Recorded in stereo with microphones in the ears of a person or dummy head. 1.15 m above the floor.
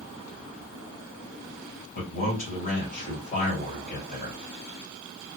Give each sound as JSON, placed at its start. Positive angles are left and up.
{"t": 1.9, "sound": "a man speaking", "side_deg": 45, "distance_m": 2.0}